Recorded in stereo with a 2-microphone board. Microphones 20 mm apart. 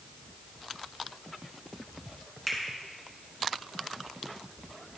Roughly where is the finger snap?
Centre.